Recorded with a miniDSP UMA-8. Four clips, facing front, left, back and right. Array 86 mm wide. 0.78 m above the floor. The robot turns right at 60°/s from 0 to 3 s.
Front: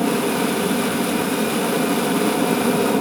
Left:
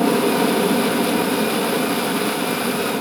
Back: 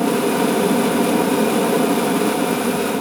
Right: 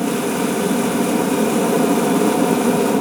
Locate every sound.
0.0 s an aircraft: 115° left; by 3.0 s 65° right